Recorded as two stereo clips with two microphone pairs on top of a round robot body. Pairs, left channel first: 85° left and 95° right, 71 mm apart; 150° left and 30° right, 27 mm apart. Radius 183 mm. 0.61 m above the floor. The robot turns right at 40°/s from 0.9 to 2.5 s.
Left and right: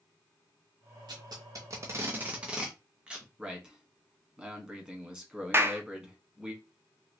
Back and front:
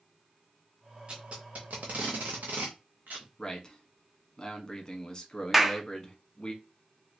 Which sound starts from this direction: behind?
A man speaking, at 3.4 s.